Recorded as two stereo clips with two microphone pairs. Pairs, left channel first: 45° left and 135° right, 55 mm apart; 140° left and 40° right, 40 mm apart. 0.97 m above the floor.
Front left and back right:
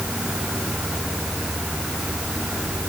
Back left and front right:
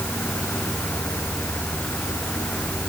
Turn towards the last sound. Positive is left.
No sound to turn to.